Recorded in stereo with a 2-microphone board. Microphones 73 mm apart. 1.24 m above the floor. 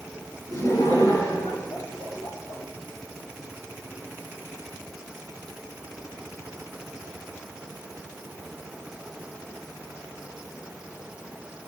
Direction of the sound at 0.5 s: 60° left (ahead or behind).